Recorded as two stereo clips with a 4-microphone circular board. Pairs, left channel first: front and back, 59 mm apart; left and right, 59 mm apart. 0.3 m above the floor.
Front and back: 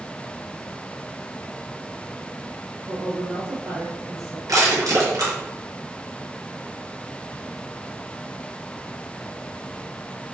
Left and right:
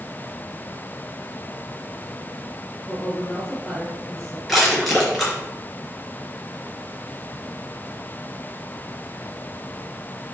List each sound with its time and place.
2.9 s a woman speaking: 170° left, 4 m
4.5 s crushing: straight behind, 4 m